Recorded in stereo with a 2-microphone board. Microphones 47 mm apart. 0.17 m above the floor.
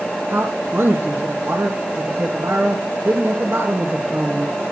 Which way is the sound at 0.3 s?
65° right (ahead or behind).